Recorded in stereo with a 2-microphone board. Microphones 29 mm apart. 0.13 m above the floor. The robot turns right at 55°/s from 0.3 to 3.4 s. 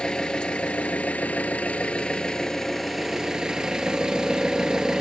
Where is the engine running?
40° left, 1.2 m; by 5.0 s 145° right, 1.2 m.